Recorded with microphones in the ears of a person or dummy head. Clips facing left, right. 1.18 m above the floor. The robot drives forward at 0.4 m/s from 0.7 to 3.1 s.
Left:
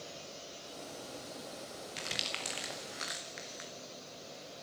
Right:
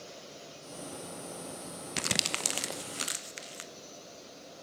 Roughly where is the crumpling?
Right.